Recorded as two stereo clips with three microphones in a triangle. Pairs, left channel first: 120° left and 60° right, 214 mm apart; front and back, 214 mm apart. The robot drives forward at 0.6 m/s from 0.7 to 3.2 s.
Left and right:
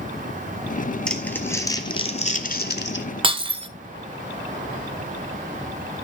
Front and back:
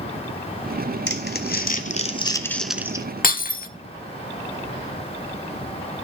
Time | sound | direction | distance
1.1 | crumpling | 35° left | 1.2 m
3.2 | breaking glass | 10° right | 0.6 m